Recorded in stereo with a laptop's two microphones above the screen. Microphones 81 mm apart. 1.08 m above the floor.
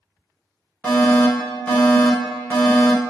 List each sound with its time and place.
0.8 s a fire alarm: 15° left (ahead or behind), 1.4 m